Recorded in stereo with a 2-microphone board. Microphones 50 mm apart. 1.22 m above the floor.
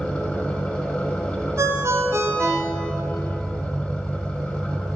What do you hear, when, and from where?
0.0 s an engine running: 15° left (ahead or behind), 0.7 m
1.6 s a ringtone: 65° right (ahead or behind), 0.6 m